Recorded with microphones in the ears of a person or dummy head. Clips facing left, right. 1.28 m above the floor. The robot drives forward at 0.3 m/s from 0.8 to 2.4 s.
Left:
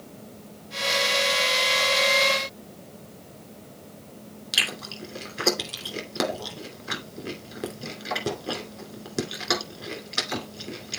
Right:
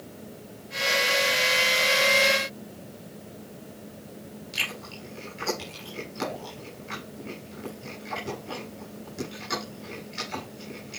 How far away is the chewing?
About 2.5 m.